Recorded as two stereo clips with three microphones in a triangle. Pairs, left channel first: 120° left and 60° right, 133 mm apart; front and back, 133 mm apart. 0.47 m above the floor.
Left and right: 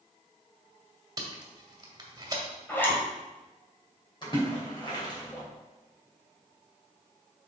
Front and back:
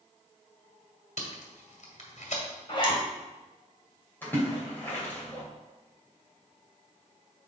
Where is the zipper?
45° left, 1.9 m.